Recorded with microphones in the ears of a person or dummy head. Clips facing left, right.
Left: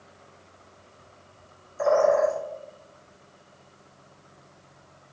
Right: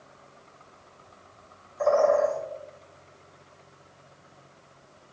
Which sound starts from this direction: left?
A bird, at 1.8 s.